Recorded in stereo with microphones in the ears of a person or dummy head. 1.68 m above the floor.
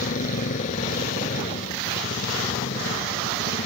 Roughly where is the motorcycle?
Left.